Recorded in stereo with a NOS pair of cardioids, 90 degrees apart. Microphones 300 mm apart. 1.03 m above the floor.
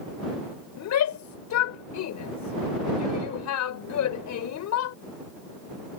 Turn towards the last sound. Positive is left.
turn(degrees=70)